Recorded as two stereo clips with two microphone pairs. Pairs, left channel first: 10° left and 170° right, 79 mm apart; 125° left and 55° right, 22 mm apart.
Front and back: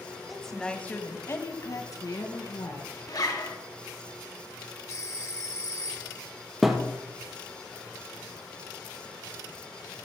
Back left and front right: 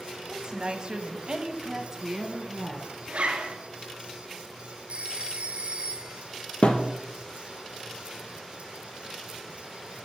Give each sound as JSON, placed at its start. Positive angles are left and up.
{"t": 0.3, "sound": "a woman speaking", "azimuth_deg": -90, "distance_m": 1.7}
{"t": 3.1, "sound": "a zipper", "azimuth_deg": -25, "distance_m": 1.8}
{"t": 4.9, "sound": "a phone ringing", "azimuth_deg": -40, "distance_m": 1.9}
{"t": 6.6, "sound": "a thud", "azimuth_deg": 100, "distance_m": 1.9}